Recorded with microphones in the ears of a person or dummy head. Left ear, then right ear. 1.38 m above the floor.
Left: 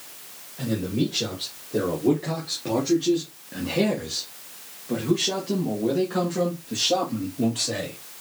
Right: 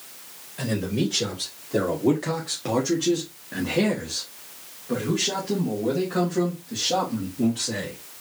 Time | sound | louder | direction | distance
0.6 | a man speaking | even | 75° right (ahead or behind) | 1.9 m